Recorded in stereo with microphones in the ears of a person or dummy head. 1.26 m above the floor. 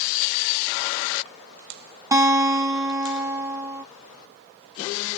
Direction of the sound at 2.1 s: 15° right (ahead or behind).